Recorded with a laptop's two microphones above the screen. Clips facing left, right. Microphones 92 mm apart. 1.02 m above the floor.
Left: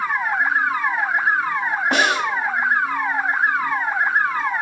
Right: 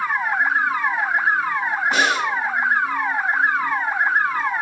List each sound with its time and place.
1.9 s a snare drum: 75° left (ahead or behind), 3 m